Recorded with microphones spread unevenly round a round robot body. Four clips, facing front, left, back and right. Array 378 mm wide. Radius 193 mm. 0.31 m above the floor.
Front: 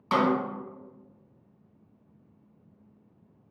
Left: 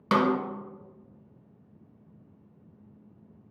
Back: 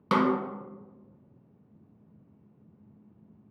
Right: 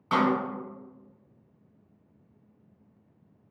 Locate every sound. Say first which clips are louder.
0.1 s a snare drum: left 1 dB, even; 130° left, 0.5 m